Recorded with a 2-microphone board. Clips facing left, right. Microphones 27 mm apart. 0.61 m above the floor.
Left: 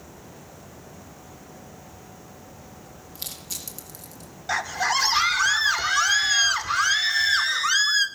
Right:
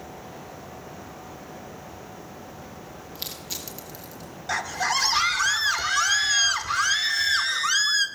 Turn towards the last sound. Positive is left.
turn(degrees=10)  # may be behind; listen again after turning